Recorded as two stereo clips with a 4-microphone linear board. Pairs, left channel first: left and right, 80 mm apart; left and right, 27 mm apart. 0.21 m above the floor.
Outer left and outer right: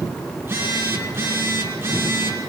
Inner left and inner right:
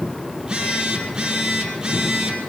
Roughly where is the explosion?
I don't hear an explosion.